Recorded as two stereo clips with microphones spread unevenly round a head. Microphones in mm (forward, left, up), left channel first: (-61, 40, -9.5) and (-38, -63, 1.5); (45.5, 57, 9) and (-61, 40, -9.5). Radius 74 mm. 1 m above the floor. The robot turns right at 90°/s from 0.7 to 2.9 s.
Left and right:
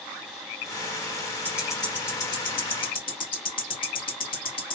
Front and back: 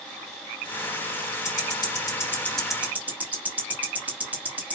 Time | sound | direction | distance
1.4 | ticking | 20° right | 1.0 m